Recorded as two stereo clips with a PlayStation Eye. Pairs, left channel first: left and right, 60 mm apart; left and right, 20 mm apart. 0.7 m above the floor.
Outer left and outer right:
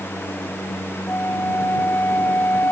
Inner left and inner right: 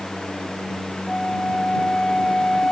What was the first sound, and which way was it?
A flute, 30° left (ahead or behind).